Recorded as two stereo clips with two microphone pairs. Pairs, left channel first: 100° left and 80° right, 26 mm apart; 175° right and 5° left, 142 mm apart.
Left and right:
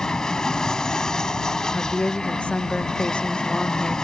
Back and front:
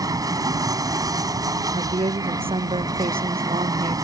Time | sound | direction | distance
0.0 | an aircraft | 55° left | ?
1.7 | a woman speaking | 55° left | ?